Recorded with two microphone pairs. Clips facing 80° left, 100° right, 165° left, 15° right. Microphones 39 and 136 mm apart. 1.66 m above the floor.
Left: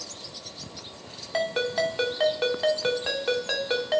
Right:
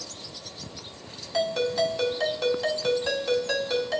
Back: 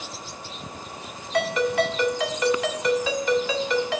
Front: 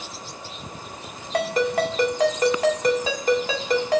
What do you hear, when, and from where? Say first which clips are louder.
1.3 s a ringtone: right 1 dB, even; 30° left, 2 m